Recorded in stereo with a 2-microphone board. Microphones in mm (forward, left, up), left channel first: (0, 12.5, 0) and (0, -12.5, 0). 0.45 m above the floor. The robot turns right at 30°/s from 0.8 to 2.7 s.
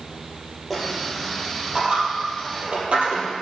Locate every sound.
0.7 s a dropped coin: 5° right (ahead or behind), 3.5 m; by 3.3 s 65° right (ahead or behind), 3.5 m